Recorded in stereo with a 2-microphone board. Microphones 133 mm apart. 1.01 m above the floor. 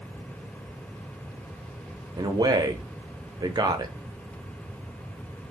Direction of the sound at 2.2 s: 30° right (ahead or behind).